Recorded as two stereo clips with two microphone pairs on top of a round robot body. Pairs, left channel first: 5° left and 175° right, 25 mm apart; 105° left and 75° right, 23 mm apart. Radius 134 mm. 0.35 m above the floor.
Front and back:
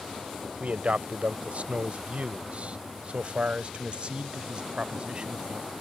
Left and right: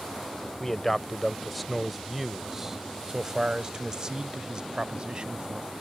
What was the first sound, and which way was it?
A man speaking, 175° left.